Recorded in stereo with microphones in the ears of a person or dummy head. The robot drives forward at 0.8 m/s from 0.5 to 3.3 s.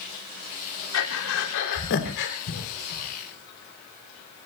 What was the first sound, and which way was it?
Breathing, 70° left (ahead or behind).